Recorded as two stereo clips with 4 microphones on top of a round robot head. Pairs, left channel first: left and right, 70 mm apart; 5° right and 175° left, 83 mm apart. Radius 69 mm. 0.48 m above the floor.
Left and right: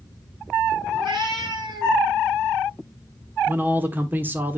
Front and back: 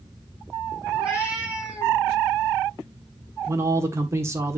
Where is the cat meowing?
110° right, 5.5 m.